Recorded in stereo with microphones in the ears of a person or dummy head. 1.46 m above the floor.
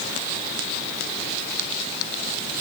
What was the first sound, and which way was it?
Only background noise.